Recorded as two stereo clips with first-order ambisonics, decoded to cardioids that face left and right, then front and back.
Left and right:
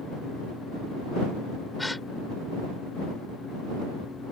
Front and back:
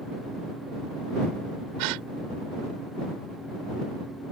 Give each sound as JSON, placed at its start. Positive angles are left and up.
{"t": 1.8, "sound": "a gasp", "azimuth_deg": 175}